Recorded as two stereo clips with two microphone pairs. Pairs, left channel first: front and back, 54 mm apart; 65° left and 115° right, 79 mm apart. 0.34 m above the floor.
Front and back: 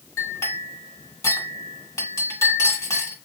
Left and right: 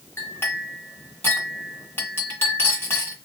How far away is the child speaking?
No child speaking in this recording.